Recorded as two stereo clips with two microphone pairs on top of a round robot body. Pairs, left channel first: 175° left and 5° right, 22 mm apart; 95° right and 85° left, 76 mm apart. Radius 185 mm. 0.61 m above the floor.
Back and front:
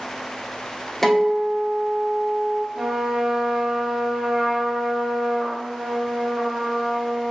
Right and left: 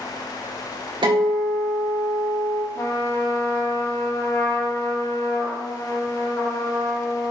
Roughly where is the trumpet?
Ahead right.